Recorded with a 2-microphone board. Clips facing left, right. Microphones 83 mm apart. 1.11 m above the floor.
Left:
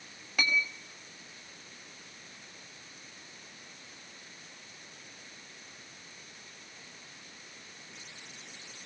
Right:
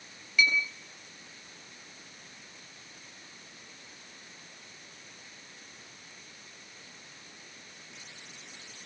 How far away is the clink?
About 4.5 m.